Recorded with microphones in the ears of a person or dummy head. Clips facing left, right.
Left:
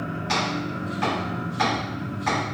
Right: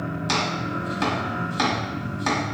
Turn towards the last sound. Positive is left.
turn(degrees=-65)  # may be behind; listen again after turning